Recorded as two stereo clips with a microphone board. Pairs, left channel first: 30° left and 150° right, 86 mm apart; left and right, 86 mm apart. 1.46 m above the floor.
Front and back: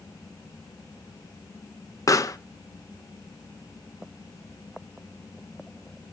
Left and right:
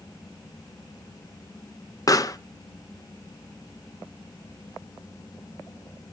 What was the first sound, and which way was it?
A pop, 65° left.